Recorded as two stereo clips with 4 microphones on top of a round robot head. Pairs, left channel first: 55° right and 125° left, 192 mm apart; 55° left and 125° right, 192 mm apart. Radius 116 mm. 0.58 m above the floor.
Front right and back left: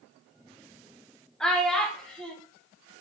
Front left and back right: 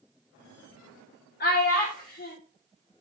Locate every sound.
1.4 s a child speaking: 30° left, 0.8 m